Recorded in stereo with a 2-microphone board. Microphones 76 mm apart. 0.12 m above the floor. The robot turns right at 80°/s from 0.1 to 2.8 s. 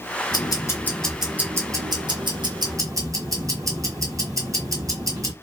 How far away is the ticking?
About 2.0 m.